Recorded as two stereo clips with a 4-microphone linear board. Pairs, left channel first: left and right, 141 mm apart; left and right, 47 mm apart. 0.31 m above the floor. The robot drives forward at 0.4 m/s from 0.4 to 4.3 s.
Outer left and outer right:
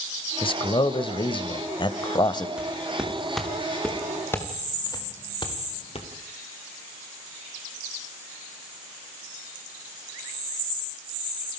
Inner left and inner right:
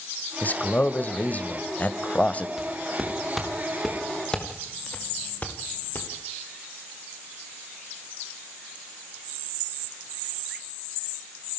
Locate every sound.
0.4 s a man speaking: 35° left (ahead or behind), 1.3 m; by 2.5 s 30° left (ahead or behind), 1.5 m
2.6 s footsteps: 5° right (ahead or behind), 5.5 m; by 6.1 s 45° left (ahead or behind), 4 m